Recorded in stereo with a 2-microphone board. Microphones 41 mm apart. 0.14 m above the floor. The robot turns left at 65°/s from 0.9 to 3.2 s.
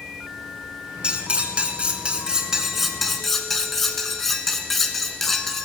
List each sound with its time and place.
1.0 s cutlery clinking: 25° right (ahead or behind), 0.8 m; by 5.7 s 10° left (ahead or behind), 0.8 m